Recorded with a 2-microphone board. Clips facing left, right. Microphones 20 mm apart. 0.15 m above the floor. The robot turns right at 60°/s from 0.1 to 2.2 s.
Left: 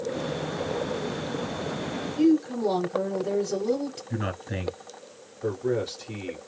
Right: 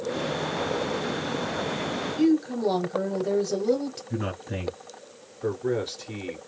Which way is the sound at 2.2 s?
20° right (ahead or behind).